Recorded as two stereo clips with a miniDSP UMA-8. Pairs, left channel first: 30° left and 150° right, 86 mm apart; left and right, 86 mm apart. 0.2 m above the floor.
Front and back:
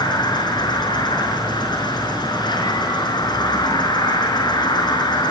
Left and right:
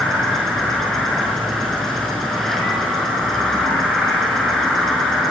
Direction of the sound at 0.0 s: 5° left.